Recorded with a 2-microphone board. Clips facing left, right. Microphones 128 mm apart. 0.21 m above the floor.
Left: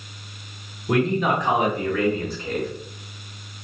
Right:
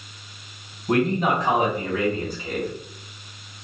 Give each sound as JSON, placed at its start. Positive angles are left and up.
{"t": 0.9, "sound": "a man speaking", "side_deg": -40, "distance_m": 2.0}